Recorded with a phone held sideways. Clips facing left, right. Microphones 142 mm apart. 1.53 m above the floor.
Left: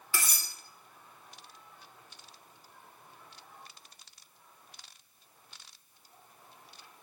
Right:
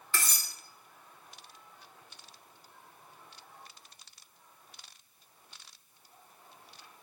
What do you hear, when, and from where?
0.1 s cutlery clinking: 10° left (ahead or behind), 0.6 m